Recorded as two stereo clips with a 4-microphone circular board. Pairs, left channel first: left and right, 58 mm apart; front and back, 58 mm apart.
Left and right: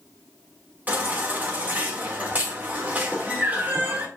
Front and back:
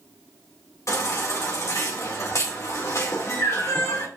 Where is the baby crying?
30° right, 2 m.